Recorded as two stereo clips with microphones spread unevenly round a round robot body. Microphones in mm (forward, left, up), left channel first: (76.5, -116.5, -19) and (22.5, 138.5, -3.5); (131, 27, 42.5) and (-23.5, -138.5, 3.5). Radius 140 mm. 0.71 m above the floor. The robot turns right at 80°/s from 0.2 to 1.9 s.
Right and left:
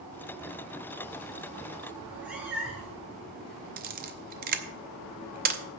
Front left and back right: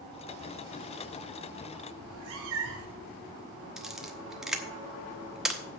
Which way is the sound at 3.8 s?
150° left.